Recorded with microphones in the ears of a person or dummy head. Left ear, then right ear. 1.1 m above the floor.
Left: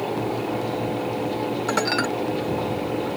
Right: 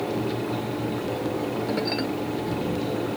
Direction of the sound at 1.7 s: 50° left (ahead or behind).